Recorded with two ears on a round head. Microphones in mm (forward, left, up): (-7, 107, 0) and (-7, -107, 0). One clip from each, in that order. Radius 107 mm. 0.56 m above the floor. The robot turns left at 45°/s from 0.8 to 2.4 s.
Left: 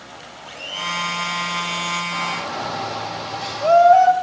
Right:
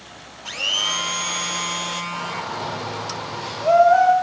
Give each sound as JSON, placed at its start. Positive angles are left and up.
{"t": 0.5, "sound": "a blender", "azimuth_deg": -115, "distance_m": 1.0}
{"t": 2.1, "sound": "a shout", "side_deg": 20, "distance_m": 2.5}